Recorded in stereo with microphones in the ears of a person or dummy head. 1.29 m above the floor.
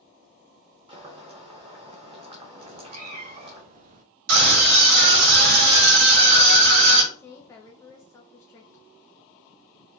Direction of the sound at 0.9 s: 35° right (ahead or behind).